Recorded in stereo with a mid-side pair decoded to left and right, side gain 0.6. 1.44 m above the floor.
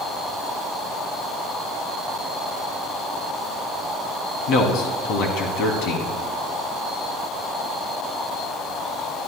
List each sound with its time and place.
4.5 s a man speaking: 70° left, 3 m